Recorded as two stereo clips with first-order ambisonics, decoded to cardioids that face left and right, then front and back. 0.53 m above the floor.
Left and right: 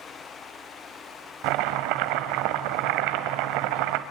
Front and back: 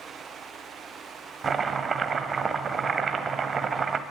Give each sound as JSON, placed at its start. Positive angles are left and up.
{"t": 1.4, "sound": "chopping", "azimuth_deg": -110, "distance_m": 1.1}